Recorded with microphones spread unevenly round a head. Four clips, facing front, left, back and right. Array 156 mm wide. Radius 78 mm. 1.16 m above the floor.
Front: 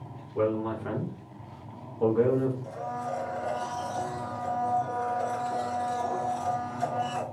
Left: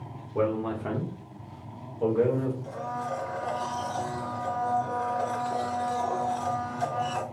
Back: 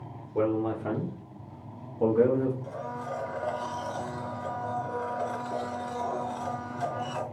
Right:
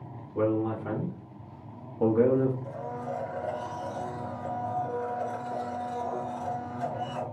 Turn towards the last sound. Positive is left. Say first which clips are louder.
# left 2 dB, front 2 dB
turn(degrees=115)